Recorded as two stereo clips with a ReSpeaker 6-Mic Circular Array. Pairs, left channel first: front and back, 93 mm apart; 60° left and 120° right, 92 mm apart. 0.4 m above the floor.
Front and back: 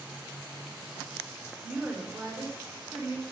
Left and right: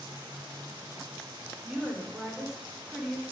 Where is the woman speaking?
160° left, 1.3 m.